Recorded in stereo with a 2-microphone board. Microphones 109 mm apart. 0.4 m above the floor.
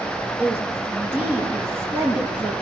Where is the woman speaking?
15° right (ahead or behind), 7 m.